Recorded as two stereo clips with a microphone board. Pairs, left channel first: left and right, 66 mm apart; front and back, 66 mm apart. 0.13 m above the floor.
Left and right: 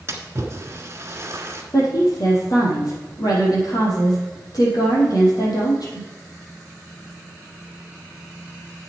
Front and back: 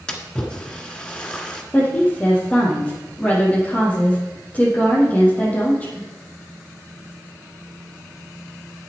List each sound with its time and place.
0.1 s a splash: 70° right, 1.5 m
1.7 s a woman speaking: 65° left, 4.5 m